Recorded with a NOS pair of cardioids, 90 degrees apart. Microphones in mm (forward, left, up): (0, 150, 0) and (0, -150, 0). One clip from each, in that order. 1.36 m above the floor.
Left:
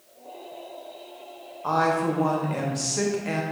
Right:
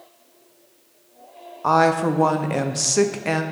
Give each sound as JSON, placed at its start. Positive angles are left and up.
{"t": 1.6, "sound": "a woman speaking", "azimuth_deg": -40, "distance_m": 0.6}